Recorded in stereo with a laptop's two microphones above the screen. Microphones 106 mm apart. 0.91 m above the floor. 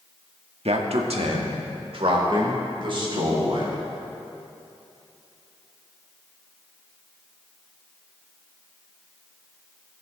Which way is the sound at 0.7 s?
80° right.